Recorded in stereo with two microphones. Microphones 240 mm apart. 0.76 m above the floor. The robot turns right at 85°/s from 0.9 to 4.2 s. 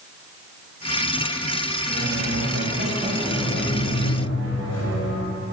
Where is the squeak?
125° right, 3 m; by 5.4 s 75° left, 3 m.